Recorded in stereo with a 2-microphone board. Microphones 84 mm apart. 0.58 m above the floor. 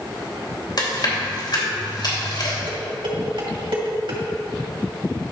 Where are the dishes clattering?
80° right, 2 m.